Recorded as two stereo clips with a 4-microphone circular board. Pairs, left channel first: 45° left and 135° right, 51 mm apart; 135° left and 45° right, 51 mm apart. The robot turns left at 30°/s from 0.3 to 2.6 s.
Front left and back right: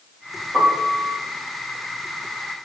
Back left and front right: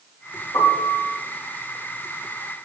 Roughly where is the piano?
Behind left.